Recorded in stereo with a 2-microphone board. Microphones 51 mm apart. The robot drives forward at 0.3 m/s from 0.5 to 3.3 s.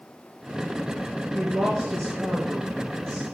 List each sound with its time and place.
1.3 s a woman speaking: 15° left (ahead or behind), 2 m